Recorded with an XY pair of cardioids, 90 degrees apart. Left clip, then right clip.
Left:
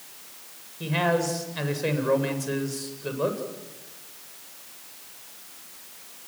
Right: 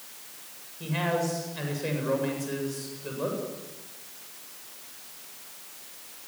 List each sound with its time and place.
0.8 s a man speaking: 45° left, 8 m